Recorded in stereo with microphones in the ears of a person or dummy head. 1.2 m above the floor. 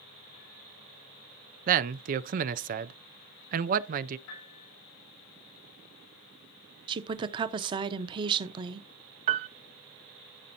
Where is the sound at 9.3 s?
35° right (ahead or behind), 0.5 m.